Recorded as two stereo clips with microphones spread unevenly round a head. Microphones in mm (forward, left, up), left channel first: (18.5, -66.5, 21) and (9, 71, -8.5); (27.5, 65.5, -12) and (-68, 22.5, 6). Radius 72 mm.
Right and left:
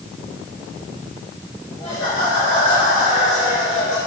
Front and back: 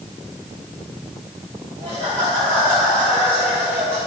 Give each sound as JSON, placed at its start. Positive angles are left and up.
{"t": 1.8, "sound": "laughter", "azimuth_deg": -135, "distance_m": 5.5}